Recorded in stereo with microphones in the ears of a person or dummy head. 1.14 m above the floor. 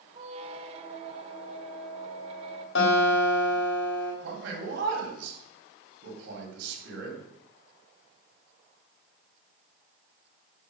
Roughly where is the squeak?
Right.